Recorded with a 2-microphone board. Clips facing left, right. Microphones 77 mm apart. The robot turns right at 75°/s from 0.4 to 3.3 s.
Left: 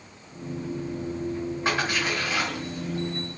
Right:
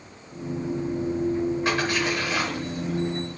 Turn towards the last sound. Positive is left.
turn(degrees=-75)  # may be behind; listen again after turning